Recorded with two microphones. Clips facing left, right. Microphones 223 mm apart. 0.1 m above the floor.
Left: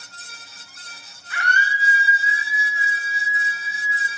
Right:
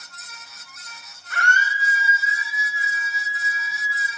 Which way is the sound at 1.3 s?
50° right (ahead or behind).